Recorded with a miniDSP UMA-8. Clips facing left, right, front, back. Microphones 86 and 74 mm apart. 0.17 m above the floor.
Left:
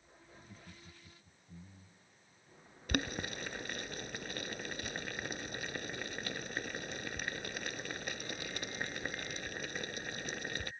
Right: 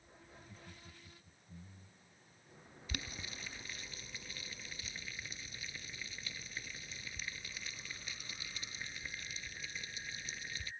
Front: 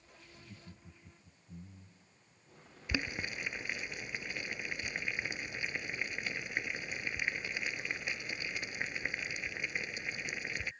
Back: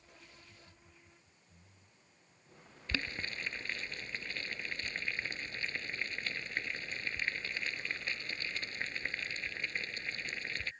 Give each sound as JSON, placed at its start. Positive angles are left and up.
{"t": 0.3, "sound": "laughter", "azimuth_deg": 25}
{"t": 2.9, "sound": "boiling", "azimuth_deg": 75}